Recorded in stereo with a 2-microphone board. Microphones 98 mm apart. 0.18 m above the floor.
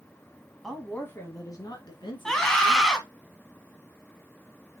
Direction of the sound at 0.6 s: Centre (ahead or behind).